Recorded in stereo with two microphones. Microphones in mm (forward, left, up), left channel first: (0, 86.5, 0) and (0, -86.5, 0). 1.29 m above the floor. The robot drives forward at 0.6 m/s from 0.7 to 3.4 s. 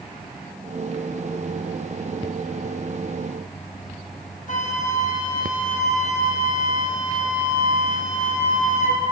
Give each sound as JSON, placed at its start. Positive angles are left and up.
{"t": 4.5, "sound": "a flute", "side_deg": 45, "distance_m": 0.6}